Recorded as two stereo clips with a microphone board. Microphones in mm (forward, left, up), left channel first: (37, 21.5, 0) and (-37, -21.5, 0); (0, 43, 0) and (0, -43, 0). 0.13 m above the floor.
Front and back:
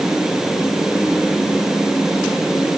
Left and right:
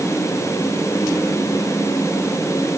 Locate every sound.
Only background noise.